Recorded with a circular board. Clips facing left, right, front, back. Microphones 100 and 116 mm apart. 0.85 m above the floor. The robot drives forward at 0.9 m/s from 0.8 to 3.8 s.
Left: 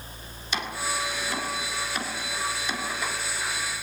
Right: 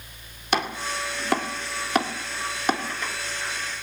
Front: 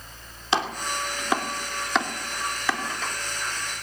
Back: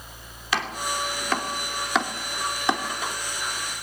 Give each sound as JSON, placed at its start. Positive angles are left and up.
{"t": 0.5, "sound": "chopping", "azimuth_deg": -65, "distance_m": 2.0}